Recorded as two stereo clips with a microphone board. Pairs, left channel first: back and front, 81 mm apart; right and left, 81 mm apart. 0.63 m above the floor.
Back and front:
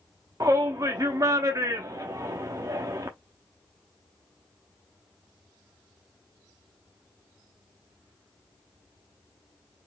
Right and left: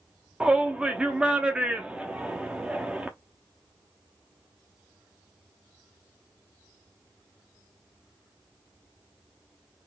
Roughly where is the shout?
Ahead.